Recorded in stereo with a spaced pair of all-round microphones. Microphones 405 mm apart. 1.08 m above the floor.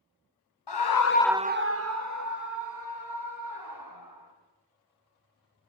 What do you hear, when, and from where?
0.7 s a scream: 75° left (ahead or behind), 0.8 m; by 4.3 s 55° right (ahead or behind), 5 m